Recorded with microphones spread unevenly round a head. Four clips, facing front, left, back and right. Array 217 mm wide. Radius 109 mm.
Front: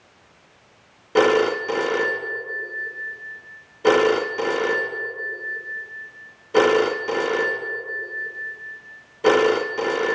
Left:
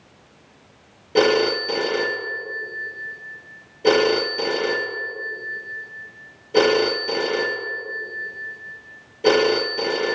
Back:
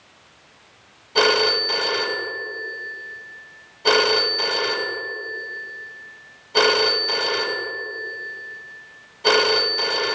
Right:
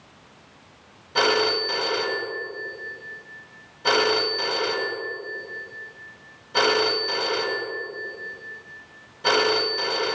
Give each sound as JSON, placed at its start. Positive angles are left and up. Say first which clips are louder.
{"t": 1.1, "sound": "a phone ringing", "louder": "left 4 dB, front 2 dB", "azimuth_deg": 45, "distance_m": 0.9}